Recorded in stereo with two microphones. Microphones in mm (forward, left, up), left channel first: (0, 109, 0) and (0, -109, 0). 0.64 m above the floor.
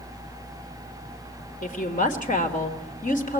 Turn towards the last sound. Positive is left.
turn(degrees=35)  # may be behind; listen again after turning